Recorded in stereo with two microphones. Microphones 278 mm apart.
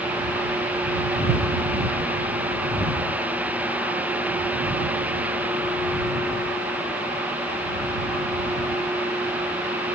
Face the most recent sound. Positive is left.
No sound to turn to.